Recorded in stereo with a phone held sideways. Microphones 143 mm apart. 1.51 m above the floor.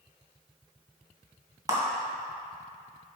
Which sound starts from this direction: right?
A clap, at 1.7 s.